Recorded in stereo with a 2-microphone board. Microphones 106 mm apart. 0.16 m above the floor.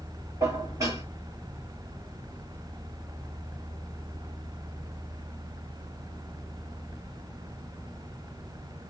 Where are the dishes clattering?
30° right (ahead or behind), 2 m.